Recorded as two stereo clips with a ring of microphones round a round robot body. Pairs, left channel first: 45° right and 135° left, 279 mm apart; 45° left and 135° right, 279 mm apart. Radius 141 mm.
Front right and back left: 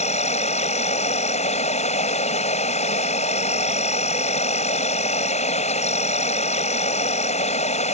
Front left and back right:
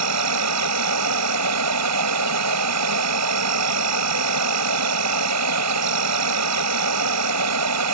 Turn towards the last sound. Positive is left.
turn(degrees=-110)